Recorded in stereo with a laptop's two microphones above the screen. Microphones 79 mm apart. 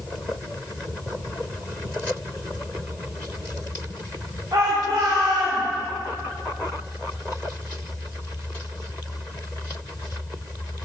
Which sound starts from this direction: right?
A shout, at 4.5 s.